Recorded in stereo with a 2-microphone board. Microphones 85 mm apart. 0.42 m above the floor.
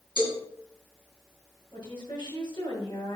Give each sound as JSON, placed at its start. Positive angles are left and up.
{"t": 0.2, "sound": "a cowbell", "side_deg": 65, "distance_m": 4.5}
{"t": 1.7, "sound": "a woman speaking", "side_deg": 60, "distance_m": 4.5}